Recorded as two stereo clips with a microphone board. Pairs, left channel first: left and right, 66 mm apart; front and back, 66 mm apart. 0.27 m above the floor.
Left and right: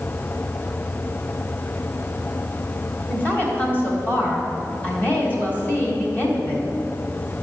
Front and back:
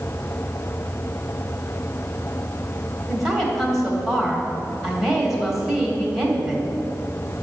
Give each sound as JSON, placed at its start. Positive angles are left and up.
{"t": 3.1, "sound": "a woman speaking", "azimuth_deg": 100, "distance_m": 1.7}